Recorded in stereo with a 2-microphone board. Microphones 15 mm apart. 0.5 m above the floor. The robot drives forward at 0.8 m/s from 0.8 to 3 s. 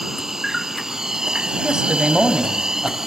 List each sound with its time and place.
0.0 s an insect: 30° right (ahead or behind), 1.1 m; by 3.1 s 35° right (ahead or behind), 1.0 m
1.6 s a man speaking: 65° right (ahead or behind), 3 m; by 3.1 s 50° right (ahead or behind), 3.5 m